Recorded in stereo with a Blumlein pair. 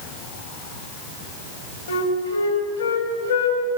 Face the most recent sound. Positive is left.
turn(degrees=65)